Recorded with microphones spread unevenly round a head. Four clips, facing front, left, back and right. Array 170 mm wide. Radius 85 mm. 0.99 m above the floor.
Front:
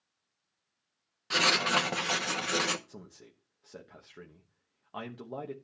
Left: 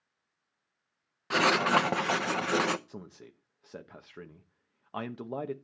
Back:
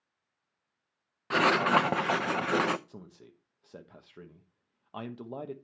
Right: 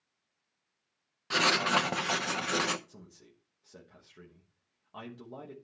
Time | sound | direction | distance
1.3 | writing | 130° left | 0.7 m
2.9 | a man speaking | 95° left | 1.0 m